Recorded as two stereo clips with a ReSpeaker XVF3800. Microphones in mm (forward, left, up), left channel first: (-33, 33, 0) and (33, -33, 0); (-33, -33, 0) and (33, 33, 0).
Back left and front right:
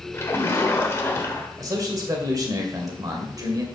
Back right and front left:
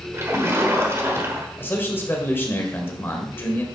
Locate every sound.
0.1 s a splash: 90° left, 1.4 m
1.6 s a man speaking: 75° right, 2 m